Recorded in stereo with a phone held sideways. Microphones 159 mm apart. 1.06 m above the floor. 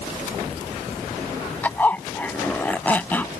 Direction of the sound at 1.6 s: 10° left (ahead or behind).